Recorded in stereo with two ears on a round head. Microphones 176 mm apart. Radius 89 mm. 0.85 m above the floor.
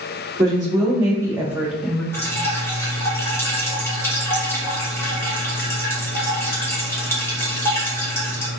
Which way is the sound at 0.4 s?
20° right (ahead or behind).